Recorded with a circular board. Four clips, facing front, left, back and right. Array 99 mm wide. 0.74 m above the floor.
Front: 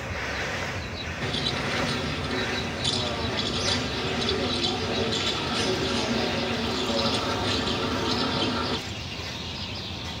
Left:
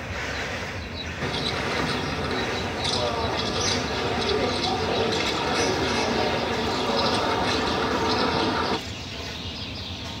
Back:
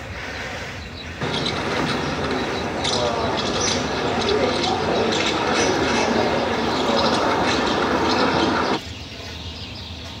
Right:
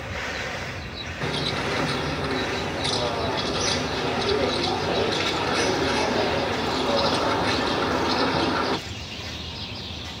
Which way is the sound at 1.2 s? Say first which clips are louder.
Right 1 dB, back 7 dB; 170° right.